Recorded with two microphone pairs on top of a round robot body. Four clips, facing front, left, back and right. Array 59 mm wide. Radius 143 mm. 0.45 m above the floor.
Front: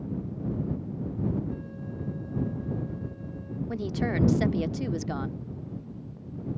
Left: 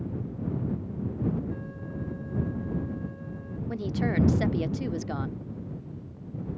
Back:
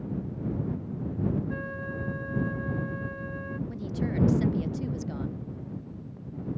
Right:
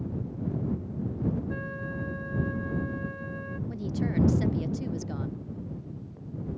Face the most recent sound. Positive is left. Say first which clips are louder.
# left 3 dB, front 5 dB
turn(degrees=35)